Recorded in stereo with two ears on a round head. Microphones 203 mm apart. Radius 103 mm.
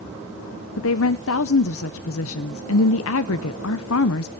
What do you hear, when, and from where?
0.8 s a woman speaking: 65° left (ahead or behind), 0.7 m